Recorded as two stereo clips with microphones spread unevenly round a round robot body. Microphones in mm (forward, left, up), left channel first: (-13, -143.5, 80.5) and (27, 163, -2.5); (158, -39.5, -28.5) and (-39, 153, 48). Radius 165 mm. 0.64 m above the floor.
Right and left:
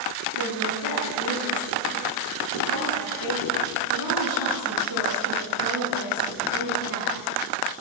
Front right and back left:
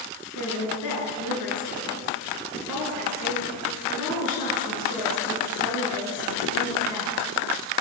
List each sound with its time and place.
0.3 s a woman speaking: 55° right, 7 m